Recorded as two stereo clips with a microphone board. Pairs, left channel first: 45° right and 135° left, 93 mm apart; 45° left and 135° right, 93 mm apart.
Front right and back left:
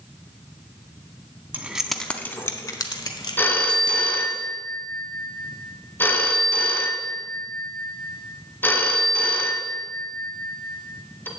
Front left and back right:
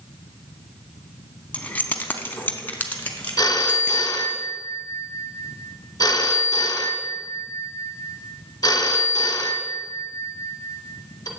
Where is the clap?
I don't hear a clap.